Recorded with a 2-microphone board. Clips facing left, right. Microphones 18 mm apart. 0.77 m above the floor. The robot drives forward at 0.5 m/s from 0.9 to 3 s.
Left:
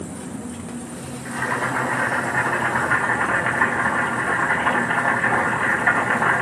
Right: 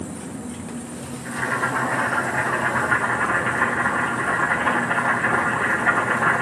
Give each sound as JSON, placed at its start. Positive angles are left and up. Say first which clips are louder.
{"t": 1.2, "sound": "boiling", "louder": "even", "side_deg": 15, "distance_m": 7.5}